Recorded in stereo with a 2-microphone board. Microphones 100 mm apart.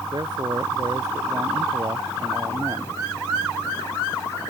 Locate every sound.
0.1 s a man speaking: 45° right (ahead or behind); by 3.0 s 35° right (ahead or behind)